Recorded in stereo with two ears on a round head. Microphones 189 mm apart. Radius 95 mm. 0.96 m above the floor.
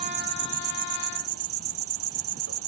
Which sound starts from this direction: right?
An insect, at 0.0 s.